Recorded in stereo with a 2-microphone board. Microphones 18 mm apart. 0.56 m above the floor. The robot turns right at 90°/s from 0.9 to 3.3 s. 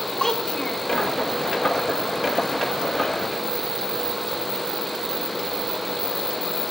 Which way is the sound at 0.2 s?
40° left (ahead or behind).